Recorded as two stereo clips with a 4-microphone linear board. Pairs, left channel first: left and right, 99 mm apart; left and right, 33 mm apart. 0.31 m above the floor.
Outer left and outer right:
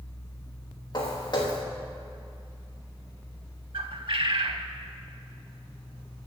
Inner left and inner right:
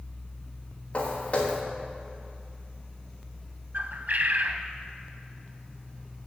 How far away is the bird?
About 0.6 m.